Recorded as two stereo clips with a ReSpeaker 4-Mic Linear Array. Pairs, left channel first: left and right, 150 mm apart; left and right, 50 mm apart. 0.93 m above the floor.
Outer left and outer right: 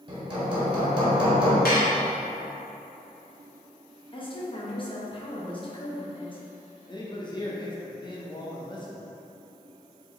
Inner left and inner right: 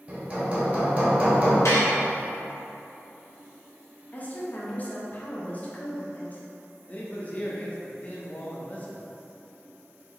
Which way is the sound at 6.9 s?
30° left (ahead or behind).